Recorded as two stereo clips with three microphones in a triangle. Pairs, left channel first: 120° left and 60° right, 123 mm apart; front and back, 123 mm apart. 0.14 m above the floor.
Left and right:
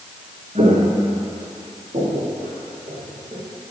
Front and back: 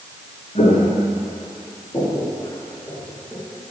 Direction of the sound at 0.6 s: 30° right.